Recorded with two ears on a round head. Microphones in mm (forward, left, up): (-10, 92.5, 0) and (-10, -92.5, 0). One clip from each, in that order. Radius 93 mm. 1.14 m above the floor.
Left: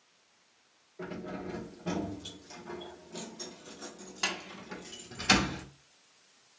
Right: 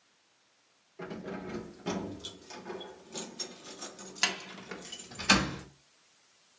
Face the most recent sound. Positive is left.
turn(degrees=-10)  # may be behind; listen again after turning